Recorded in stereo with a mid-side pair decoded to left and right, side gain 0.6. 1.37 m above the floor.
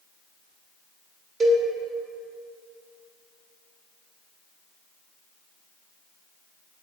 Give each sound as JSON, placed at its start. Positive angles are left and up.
{"t": 1.4, "sound": "a cowbell", "azimuth_deg": -25, "distance_m": 1.6}